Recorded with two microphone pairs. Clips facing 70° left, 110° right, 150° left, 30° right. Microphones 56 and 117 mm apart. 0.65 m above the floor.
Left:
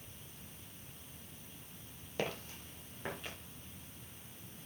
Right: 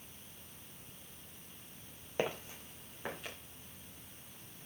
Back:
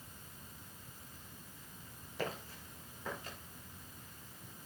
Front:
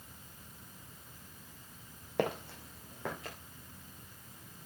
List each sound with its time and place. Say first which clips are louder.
2.2 s footsteps: right 3 dB, front 8 dB; 40° right, 1.4 m; by 3.4 s 25° right, 3 m